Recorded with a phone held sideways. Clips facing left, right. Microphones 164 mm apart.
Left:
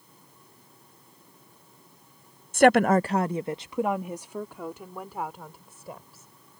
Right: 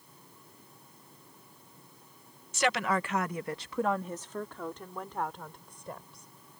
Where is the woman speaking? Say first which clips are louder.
Left 11 dB; 50° left (ahead or behind); by 6.3 s 5° left (ahead or behind).